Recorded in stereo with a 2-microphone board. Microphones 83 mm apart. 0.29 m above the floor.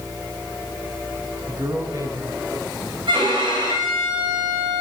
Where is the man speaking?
30° right (ahead or behind), 3 m; by 3.0 s 55° right (ahead or behind), 3.5 m.